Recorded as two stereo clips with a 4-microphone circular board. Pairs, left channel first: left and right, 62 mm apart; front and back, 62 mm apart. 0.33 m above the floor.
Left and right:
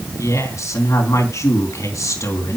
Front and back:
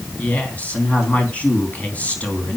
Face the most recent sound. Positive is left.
turn(degrees=65)